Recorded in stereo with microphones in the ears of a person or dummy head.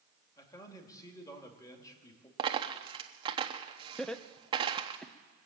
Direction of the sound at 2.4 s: 25° right (ahead or behind).